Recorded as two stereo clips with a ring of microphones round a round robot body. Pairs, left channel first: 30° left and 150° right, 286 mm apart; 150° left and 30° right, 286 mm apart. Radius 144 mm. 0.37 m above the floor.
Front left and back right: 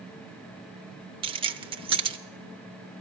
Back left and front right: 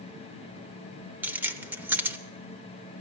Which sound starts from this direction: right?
Keys jangling, at 1.2 s.